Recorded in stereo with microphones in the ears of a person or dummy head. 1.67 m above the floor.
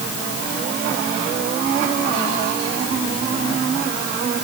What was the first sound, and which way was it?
Only background noise.